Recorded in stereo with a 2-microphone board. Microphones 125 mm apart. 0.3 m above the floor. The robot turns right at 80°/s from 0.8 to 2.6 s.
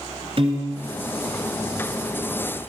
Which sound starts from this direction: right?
A piano, at 0.4 s.